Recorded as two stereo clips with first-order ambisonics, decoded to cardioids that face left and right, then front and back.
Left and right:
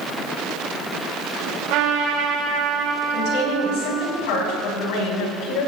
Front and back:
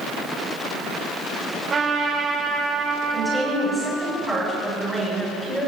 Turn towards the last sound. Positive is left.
turn(degrees=95)